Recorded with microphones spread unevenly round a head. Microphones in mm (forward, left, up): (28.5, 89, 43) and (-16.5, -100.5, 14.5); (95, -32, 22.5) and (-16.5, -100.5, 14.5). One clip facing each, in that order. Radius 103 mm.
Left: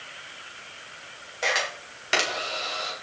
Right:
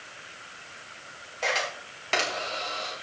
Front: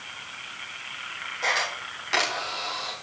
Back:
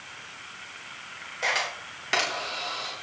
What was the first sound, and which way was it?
A camera shutter, 155° left.